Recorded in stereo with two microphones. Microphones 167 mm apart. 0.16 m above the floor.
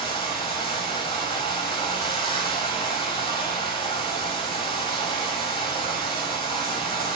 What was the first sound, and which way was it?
Running water, 30° left (ahead or behind).